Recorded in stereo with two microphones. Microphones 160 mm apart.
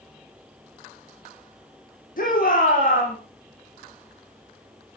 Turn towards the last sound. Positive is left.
turn(degrees=60)  # may be behind; listen again after turning